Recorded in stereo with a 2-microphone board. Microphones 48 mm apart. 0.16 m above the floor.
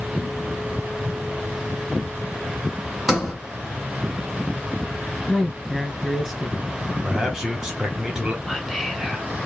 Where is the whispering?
Centre (ahead or behind), 1.4 m.